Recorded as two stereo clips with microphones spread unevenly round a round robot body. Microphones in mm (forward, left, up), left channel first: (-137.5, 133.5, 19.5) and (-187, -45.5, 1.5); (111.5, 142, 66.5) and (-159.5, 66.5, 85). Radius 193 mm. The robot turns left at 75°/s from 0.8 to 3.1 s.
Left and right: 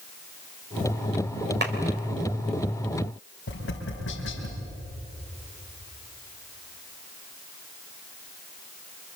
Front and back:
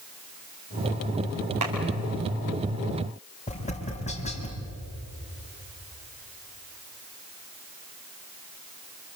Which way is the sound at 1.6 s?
130° right.